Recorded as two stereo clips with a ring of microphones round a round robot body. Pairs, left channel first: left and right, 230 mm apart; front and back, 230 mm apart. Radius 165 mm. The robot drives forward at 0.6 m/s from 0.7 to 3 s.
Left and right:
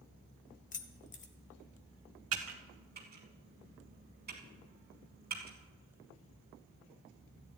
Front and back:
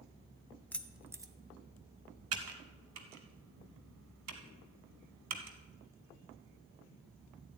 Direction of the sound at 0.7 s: 80° left.